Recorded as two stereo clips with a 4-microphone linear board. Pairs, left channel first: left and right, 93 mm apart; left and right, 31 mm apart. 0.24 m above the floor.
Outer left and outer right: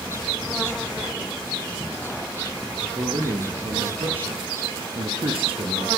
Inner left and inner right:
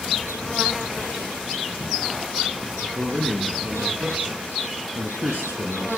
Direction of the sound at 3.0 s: 70° right (ahead or behind).